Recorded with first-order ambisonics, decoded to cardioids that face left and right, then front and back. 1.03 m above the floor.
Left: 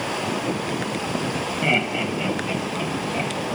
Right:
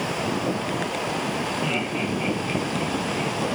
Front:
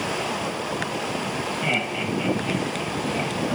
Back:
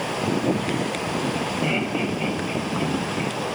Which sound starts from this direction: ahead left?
Laughter, at 1.6 s.